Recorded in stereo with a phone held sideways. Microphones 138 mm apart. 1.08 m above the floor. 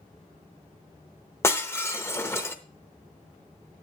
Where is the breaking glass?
20° left (ahead or behind), 0.7 m.